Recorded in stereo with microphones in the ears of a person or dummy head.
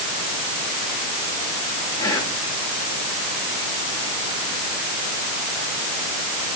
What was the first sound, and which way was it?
Whispering, 20° left (ahead or behind).